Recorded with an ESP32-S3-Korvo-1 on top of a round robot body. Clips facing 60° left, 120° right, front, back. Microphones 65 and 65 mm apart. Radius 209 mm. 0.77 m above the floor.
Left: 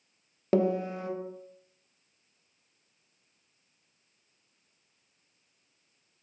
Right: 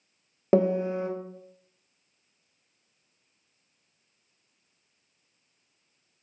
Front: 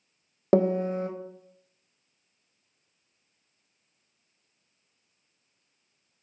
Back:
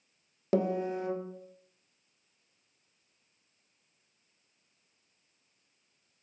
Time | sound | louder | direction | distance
0.5 | a piano | right 4 dB, front 6 dB | 50° right | 0.6 m